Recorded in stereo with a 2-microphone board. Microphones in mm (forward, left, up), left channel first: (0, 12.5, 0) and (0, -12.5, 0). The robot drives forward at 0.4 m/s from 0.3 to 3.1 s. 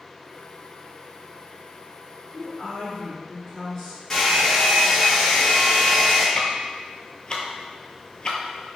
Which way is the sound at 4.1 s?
15° left (ahead or behind).